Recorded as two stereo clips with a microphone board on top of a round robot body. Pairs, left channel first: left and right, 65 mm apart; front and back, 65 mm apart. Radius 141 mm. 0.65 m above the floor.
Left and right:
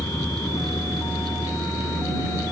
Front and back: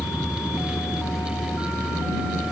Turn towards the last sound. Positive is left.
turn(degrees=55)